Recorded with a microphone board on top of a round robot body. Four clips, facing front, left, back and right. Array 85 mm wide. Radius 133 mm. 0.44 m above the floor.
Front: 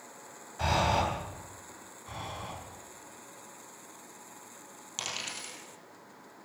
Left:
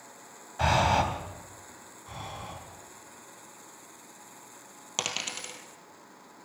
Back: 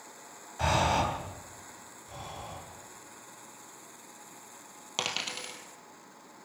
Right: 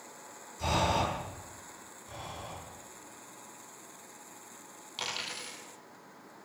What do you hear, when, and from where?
0.6 s breathing: 95° left, 3 m
2.1 s breathing: 40° left, 6.5 m
5.0 s a dropped coin: 130° left, 2.5 m